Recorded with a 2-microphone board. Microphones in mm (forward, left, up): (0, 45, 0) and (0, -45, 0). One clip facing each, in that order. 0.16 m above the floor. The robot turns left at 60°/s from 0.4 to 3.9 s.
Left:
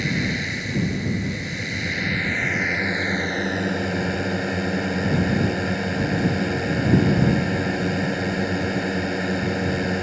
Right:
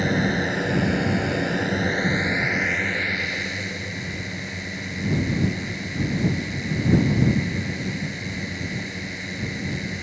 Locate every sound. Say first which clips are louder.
0.0 s a drone: right 3 dB; 45° right; by 10.0 s 105° left